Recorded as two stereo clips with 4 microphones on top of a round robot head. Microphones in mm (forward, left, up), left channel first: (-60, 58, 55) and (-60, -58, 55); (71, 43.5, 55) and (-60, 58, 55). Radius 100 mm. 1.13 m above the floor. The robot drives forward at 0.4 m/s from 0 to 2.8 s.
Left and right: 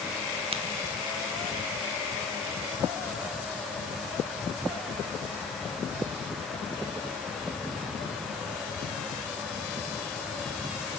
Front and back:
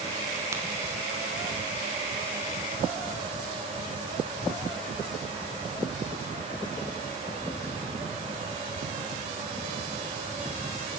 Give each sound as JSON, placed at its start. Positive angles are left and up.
{"t": 0.5, "sound": "a crack", "azimuth_deg": -120, "distance_m": 1.1}